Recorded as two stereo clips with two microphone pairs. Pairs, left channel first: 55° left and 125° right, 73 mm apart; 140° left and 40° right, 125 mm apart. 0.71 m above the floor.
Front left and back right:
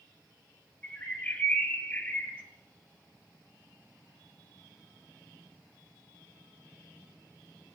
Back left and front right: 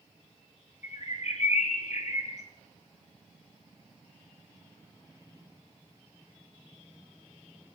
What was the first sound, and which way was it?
A bird, 120° left.